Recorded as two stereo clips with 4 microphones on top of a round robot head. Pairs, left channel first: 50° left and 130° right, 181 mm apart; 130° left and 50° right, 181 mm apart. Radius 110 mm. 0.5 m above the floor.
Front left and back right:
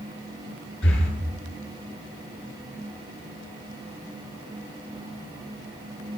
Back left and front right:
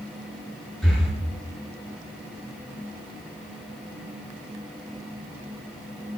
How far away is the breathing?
About 9.5 m.